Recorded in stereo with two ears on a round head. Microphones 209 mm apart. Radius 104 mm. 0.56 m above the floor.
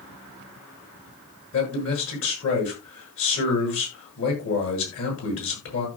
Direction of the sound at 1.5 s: 65° left (ahead or behind).